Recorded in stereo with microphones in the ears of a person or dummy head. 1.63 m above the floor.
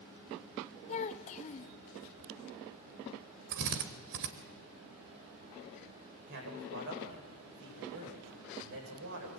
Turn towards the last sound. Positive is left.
turn(degrees=-60)  # may be behind; listen again after turning